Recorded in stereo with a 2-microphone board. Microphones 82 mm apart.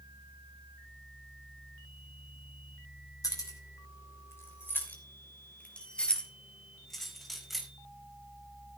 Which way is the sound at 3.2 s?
45° left (ahead or behind).